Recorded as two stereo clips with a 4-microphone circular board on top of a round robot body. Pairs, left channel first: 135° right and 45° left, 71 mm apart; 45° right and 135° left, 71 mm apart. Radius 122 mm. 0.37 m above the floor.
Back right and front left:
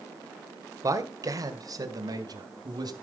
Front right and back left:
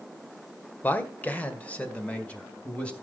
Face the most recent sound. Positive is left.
turn(degrees=30)